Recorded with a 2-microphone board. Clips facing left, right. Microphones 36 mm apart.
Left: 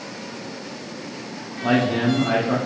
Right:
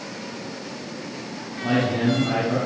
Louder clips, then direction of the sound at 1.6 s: Left 2 dB; 35° left (ahead or behind).